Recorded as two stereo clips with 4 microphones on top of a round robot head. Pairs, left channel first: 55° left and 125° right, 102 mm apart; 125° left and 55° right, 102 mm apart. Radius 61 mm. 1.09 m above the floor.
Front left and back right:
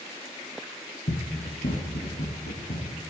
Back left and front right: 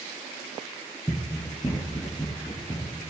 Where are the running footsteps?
65° left, 1.7 m; by 2.9 s 55° left, 3.5 m.